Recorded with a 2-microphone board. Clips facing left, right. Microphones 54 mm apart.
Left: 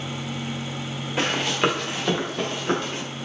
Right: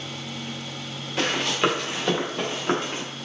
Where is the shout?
No shout in this recording.